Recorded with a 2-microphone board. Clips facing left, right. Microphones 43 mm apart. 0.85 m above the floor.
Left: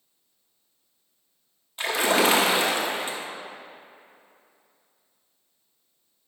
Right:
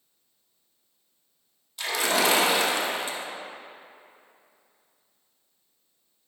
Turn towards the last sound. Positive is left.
turn(degrees=30)  # may be behind; listen again after turning